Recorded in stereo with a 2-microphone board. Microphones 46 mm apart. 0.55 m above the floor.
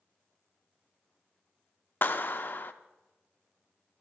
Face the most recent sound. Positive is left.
turn(degrees=45)  # may be behind; listen again after turning